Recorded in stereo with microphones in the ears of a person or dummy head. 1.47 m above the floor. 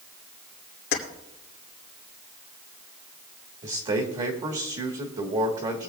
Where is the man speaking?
40° right (ahead or behind), 1.5 m.